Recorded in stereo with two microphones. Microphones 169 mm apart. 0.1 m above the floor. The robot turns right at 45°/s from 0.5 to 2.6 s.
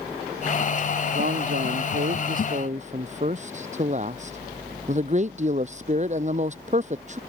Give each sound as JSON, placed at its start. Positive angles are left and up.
{"t": 1.1, "sound": "a man speaking", "azimuth_deg": -110}